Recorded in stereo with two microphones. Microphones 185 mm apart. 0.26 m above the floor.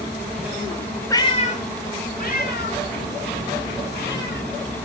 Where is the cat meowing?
15° left (ahead or behind), 0.5 m; by 4.5 s 60° left (ahead or behind), 3.5 m.